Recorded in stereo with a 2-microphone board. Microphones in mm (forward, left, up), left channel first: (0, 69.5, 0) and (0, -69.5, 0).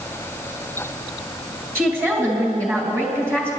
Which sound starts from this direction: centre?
A woman speaking, at 1.8 s.